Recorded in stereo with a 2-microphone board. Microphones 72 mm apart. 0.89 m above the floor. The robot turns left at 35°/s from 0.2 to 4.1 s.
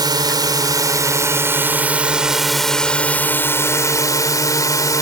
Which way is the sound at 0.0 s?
100° right.